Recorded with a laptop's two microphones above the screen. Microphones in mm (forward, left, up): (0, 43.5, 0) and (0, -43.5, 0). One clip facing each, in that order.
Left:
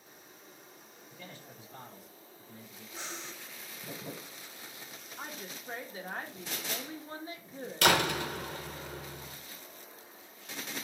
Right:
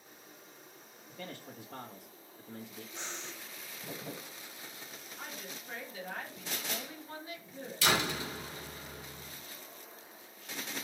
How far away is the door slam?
About 1.8 m.